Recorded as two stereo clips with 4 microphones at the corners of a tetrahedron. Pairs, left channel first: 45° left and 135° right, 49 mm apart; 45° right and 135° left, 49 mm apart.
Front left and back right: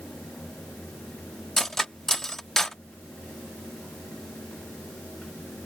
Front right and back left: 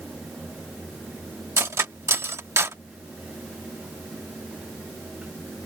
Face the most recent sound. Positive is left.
turn(degrees=125)